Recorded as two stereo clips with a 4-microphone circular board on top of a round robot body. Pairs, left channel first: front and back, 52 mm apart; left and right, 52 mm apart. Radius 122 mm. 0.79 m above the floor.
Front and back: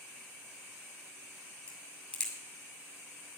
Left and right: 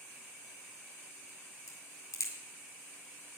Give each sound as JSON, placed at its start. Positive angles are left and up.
{"t": 1.7, "sound": "a crack", "azimuth_deg": 75, "distance_m": 2.0}